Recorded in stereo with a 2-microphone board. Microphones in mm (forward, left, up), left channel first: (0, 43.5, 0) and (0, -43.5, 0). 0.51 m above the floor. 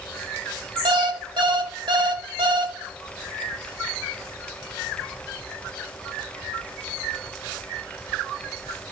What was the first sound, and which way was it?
An alarm clock, 65° right (ahead or behind).